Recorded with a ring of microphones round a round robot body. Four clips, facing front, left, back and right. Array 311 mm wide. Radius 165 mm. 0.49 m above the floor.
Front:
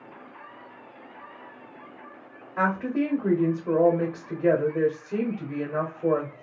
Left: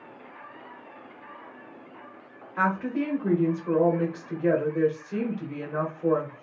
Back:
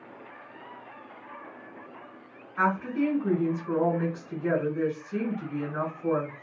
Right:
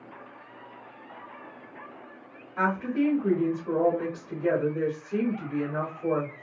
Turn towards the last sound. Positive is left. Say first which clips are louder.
# even, front 1 dB
turn(degrees=5)